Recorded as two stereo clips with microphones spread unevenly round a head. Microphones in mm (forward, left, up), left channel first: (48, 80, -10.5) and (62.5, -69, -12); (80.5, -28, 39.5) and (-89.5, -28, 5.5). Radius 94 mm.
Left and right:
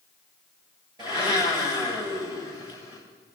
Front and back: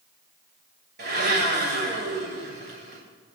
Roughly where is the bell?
No bell in this recording.